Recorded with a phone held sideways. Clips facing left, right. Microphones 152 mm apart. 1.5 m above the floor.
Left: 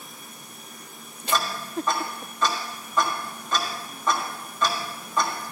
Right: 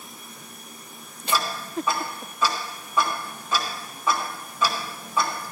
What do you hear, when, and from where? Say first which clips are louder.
1.3 s ticking: even; 10° right (ahead or behind), 1.8 m